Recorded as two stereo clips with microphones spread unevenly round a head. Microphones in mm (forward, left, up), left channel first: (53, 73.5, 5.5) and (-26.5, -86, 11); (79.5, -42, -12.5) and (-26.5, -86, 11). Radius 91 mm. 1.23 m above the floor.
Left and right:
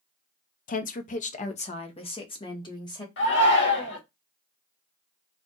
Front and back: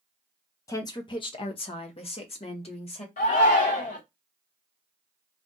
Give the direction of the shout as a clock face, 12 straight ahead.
11 o'clock.